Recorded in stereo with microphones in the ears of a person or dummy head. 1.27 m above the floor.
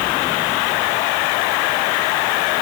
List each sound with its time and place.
Only background noise.